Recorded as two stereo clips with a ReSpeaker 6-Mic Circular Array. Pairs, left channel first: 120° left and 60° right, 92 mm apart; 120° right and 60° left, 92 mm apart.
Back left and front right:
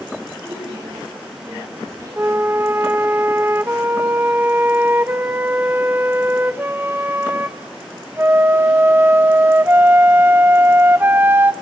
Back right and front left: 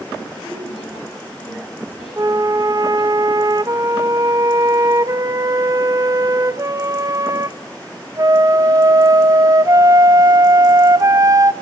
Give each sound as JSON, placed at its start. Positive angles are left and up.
{"t": 0.4, "sound": "a woman speaking", "azimuth_deg": -115, "distance_m": 7.0}
{"t": 2.2, "sound": "a flute", "azimuth_deg": 5, "distance_m": 0.7}